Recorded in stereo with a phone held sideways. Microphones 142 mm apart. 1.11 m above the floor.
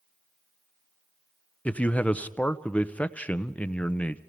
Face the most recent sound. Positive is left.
turn(degrees=10)  # may be behind; listen again after turning